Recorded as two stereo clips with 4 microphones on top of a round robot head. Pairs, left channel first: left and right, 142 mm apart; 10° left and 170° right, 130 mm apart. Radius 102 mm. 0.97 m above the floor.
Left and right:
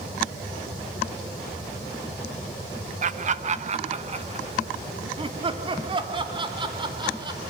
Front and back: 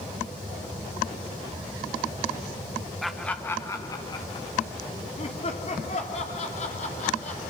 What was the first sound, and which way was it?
Laughter, 80° right.